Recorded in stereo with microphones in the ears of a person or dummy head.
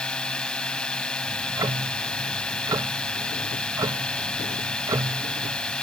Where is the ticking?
20° right (ahead or behind).